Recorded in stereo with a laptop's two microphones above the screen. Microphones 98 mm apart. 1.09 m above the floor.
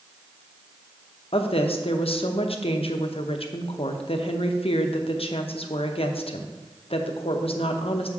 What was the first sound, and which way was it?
A woman speaking, 75° left (ahead or behind).